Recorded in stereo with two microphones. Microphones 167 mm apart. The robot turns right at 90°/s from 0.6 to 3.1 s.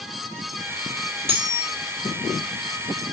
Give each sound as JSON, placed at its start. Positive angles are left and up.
{"t": 1.3, "sound": "cutlery clinking", "azimuth_deg": -35, "distance_m": 1.4}